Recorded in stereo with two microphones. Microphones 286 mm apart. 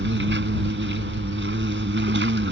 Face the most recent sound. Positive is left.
turn(degrees=-40)  # may be behind; listen again after turning